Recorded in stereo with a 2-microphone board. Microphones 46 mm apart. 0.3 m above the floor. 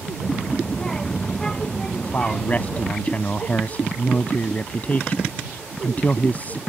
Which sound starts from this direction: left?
A man speaking, at 1.9 s.